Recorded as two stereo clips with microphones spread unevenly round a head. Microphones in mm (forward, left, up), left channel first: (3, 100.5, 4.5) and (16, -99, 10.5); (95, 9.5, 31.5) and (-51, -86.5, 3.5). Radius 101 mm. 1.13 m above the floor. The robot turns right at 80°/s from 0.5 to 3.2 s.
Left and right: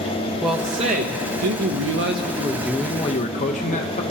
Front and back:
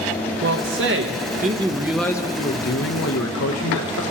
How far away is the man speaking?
About 0.9 m.